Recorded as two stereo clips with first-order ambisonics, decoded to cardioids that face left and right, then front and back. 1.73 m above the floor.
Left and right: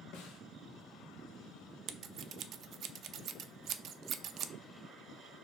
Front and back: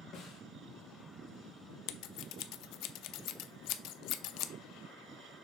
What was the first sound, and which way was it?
A snare drum, 50° left.